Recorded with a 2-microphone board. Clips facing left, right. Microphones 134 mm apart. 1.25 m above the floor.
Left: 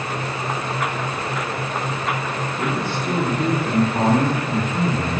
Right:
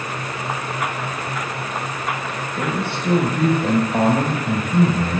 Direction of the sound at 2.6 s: 85° right.